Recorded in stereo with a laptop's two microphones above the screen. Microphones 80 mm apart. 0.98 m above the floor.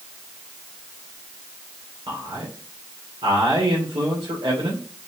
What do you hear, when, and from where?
2.1 s a man speaking: 85° right, 3 m